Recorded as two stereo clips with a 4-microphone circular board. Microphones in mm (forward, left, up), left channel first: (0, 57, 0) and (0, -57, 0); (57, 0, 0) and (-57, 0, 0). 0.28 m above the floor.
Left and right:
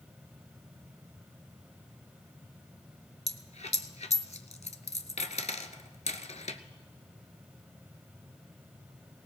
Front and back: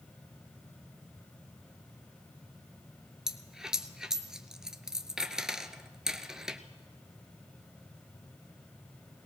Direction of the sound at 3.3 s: 95° left.